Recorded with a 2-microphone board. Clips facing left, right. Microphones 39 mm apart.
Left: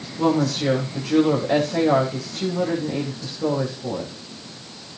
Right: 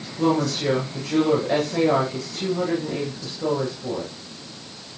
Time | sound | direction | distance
0.2 | a woman speaking | 10° left (ahead or behind) | 9 m